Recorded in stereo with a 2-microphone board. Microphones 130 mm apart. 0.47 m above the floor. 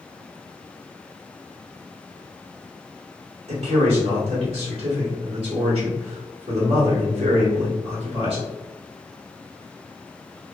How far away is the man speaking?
About 1.2 m.